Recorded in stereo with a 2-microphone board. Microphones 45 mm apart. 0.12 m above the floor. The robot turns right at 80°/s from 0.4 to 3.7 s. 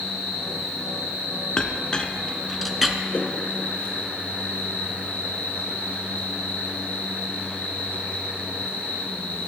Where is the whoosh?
40° left (ahead or behind), 1.0 m; by 3.3 s 45° left (ahead or behind), 1.0 m.